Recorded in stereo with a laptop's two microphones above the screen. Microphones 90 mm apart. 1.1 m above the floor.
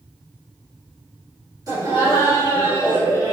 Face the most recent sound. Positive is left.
turn(degrees=-40)  # may be behind; listen again after turning